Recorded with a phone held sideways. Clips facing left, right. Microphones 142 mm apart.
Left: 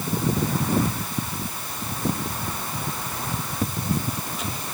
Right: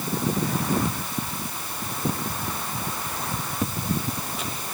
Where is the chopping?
No chopping in this recording.